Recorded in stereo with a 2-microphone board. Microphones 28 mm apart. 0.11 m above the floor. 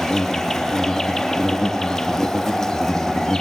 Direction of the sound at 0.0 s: 15° left (ahead or behind).